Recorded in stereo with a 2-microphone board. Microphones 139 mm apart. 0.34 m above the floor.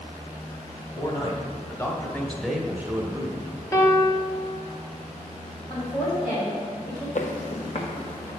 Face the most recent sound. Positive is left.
turn(degrees=45)  # may be behind; listen again after turning